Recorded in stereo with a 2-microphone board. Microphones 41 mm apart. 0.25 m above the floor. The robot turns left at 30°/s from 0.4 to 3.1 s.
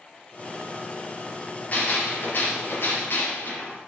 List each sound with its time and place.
1.7 s a gunshot: 135° left, 5 m; by 3.8 s 95° left, 5 m